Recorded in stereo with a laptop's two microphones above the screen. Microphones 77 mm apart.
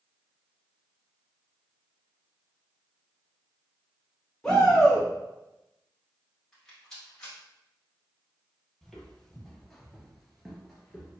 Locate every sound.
4.4 s a shout: 10° left (ahead or behind), 1.2 m
6.5 s a rattle: 10° left (ahead or behind), 1.5 m
8.8 s footsteps: centre (ahead or behind), 1.2 m